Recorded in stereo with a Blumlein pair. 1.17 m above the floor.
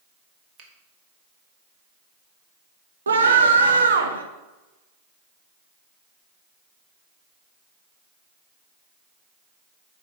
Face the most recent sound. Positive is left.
turn(degrees=-70)